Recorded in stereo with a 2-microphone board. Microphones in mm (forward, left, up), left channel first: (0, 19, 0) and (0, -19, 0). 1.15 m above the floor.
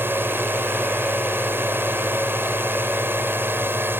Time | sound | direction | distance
0.0 | a drone | 75° right (ahead or behind) | ?